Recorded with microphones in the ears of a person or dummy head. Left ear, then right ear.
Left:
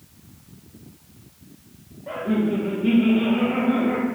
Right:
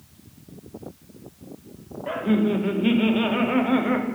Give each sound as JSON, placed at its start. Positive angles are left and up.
{"t": 2.1, "sound": "laughter", "side_deg": -75, "distance_m": 0.5}